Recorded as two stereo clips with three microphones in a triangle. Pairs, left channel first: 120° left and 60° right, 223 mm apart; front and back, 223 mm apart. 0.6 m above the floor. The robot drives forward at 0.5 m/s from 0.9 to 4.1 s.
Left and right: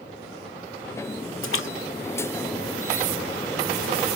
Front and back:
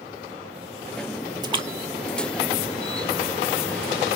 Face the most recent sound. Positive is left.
turn(degrees=155)